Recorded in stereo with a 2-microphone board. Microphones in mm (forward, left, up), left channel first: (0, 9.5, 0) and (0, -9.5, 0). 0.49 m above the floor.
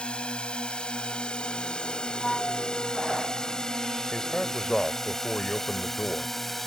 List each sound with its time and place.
0.0 s a drone: 60° left (ahead or behind); by 6.7 s 10° left (ahead or behind)
2.2 s a flute: 40° left (ahead or behind)
4.1 s a man speaking: 55° left (ahead or behind)